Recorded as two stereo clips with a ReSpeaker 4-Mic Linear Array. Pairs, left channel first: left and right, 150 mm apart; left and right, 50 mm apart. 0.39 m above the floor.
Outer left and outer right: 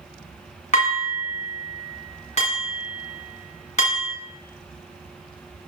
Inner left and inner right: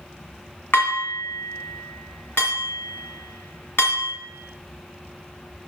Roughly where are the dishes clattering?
Left.